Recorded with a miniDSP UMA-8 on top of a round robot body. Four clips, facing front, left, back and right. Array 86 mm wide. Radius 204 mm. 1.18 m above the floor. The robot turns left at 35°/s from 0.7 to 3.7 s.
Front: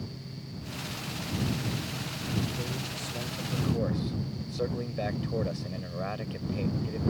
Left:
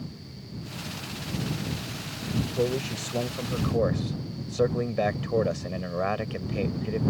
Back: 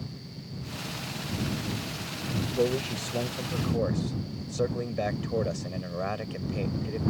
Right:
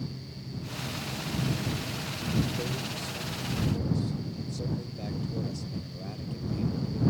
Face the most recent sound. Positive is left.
turn(degrees=100)